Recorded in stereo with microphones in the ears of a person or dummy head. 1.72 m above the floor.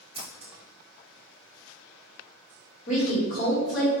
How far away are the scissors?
About 0.9 m.